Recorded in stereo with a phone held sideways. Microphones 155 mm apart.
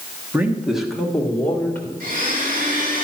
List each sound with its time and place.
0.3 s a man speaking: 10° right (ahead or behind), 1.4 m; by 1.9 s 15° left (ahead or behind), 2.5 m
2.0 s a blender: 65° right (ahead or behind), 3 m